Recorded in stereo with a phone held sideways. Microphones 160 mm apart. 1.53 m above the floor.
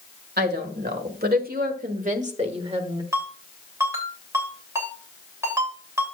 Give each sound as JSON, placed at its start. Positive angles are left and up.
{"t": 0.4, "sound": "a woman speaking", "side_deg": -85, "distance_m": 1.8}
{"t": 3.1, "sound": "a ringtone", "side_deg": -15, "distance_m": 3.0}